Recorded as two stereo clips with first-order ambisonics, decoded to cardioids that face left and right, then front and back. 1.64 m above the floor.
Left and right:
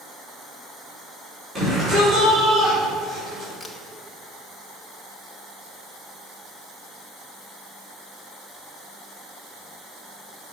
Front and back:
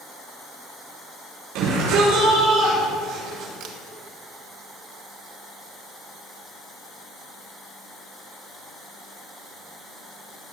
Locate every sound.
1.6 s a shout: 165° right, 5.5 m
3.6 s a camera shutter: 175° left, 1.7 m